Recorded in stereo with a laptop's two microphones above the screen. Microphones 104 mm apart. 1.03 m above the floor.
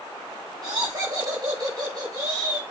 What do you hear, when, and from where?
0.6 s laughter: 40° right (ahead or behind), 5.5 m